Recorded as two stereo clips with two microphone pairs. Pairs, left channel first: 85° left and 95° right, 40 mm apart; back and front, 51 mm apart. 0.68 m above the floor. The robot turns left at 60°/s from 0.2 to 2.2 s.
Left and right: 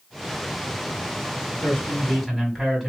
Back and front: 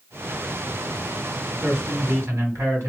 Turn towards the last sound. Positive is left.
turn(degrees=-5)